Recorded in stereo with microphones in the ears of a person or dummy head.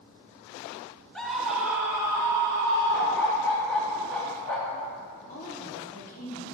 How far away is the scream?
About 0.8 m.